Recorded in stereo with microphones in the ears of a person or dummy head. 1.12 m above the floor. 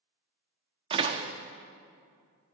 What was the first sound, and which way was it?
A door slam, 30° right (ahead or behind).